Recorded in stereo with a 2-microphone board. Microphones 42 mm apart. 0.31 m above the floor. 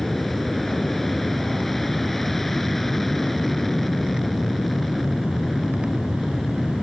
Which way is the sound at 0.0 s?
10° left (ahead or behind).